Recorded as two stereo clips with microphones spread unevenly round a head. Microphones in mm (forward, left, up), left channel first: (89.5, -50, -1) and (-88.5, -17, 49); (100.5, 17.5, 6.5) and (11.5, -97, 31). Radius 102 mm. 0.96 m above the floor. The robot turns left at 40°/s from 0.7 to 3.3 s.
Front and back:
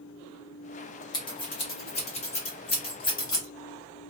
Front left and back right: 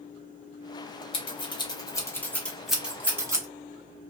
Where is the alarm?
I don't hear an alarm.